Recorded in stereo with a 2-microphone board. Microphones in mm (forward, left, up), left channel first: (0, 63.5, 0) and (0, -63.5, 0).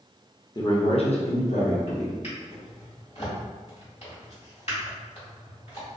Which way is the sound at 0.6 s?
30° left (ahead or behind).